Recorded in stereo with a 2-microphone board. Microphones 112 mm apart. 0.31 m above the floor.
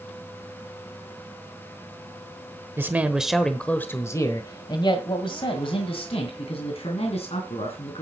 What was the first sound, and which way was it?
A man speaking, 20° right (ahead or behind).